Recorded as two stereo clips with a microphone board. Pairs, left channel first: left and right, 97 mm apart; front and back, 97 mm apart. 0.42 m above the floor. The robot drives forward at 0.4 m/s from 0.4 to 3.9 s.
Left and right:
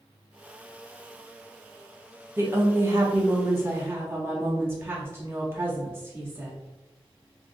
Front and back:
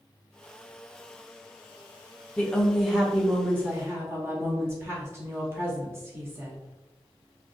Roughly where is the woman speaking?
Ahead right.